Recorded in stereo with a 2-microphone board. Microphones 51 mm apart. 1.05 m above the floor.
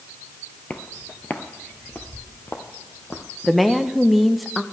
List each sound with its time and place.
0.7 s footsteps: 30° left (ahead or behind), 1.1 m; by 3.2 s 45° left (ahead or behind), 2 m
3.4 s a woman speaking: centre (ahead or behind), 0.7 m